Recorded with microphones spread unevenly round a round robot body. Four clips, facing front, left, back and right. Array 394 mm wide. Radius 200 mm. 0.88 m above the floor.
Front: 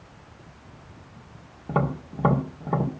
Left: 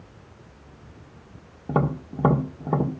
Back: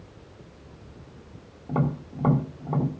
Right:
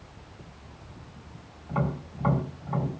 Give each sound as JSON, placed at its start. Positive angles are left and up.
{"t": 1.7, "sound": "tapping", "azimuth_deg": 65, "distance_m": 2.5}